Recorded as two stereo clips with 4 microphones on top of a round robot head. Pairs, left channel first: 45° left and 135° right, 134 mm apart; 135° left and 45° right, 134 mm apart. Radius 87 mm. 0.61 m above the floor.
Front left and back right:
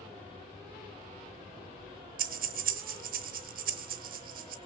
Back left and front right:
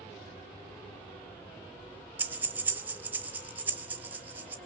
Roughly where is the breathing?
Behind right.